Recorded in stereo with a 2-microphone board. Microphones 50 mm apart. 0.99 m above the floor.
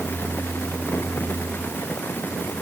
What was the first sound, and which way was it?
Only background noise.